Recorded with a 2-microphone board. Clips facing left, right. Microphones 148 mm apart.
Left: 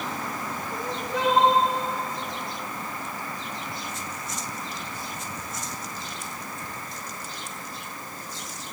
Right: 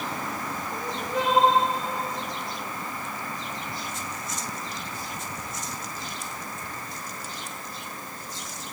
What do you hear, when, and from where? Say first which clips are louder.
0.7 s crying: right 1 dB; 70° left (ahead or behind), 8 m